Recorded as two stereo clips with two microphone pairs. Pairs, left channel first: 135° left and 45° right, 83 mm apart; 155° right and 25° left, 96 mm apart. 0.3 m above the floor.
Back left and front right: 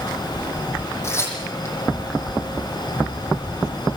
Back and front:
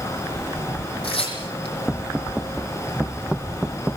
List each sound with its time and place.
1.0 s tearing paper: 165° right, 8.5 m